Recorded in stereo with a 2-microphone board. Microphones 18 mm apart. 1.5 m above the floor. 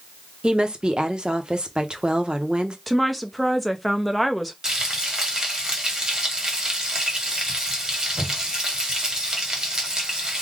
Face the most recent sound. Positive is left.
turn(degrees=-30)  # may be behind; listen again after turning